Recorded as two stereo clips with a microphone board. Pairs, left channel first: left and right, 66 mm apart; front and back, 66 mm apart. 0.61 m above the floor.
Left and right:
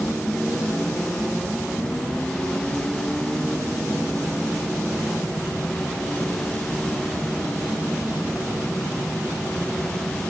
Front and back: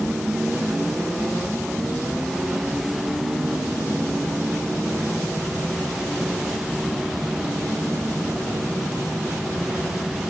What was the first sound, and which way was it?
Only background noise.